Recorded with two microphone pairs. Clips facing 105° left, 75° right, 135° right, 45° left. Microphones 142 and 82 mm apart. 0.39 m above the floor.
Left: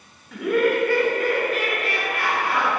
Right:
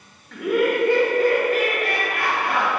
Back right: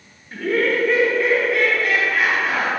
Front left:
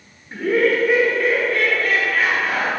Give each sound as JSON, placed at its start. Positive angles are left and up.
{"t": 0.3, "sound": "laughter", "azimuth_deg": 35, "distance_m": 1.1}